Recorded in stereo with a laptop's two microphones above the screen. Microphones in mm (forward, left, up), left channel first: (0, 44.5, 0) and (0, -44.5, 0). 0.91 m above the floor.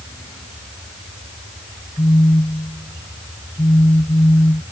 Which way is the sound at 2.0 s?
75° left (ahead or behind).